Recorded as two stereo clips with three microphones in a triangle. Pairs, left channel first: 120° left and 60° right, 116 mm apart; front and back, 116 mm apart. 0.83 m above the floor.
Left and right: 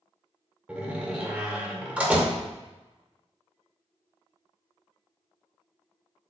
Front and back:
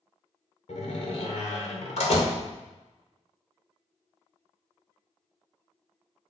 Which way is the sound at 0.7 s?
20° left.